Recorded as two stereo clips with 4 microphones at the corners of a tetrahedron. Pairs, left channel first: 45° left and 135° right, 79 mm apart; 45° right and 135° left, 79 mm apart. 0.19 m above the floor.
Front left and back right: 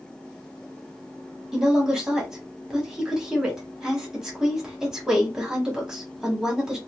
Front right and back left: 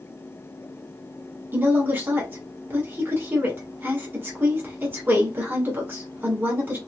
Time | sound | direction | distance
1.5 | a woman speaking | 155° left | 1.3 m